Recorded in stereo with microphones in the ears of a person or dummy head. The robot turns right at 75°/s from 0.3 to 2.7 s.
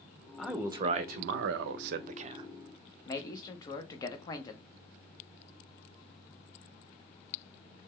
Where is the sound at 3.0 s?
20° left (ahead or behind), 0.8 m.